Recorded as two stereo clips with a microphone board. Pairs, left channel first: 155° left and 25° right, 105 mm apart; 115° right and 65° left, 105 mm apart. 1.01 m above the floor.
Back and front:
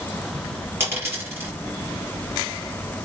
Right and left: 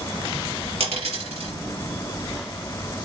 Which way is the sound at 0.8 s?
45° left.